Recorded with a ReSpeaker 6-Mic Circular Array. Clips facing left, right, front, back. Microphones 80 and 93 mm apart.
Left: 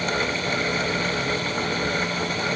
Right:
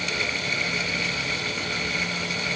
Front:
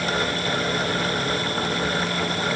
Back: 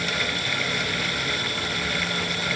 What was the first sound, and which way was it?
Only background noise.